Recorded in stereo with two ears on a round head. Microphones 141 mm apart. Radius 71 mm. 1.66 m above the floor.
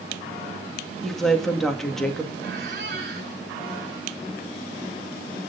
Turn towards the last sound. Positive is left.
turn(degrees=-75)  # may be behind; listen again after turning